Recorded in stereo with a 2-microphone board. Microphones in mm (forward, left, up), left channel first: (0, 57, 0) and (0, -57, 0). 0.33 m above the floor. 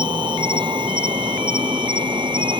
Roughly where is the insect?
Right.